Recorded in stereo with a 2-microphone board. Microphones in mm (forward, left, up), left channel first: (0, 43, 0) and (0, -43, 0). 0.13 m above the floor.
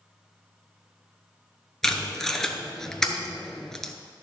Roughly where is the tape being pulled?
Centre.